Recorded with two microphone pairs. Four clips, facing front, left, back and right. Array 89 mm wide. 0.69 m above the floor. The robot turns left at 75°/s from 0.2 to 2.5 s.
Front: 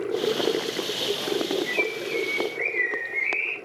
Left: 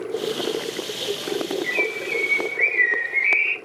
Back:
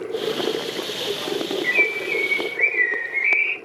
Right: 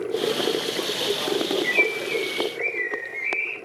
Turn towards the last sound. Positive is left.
turn(degrees=125)